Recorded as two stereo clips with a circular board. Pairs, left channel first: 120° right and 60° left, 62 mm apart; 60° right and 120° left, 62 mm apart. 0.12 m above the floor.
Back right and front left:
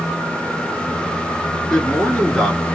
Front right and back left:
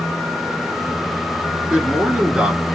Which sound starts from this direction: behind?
A man speaking, at 1.7 s.